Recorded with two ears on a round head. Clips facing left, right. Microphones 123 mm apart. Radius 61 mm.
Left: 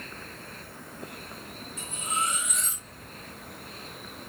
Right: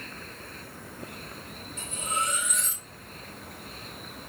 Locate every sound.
1.8 s cutlery clinking: 50° right (ahead or behind), 2 m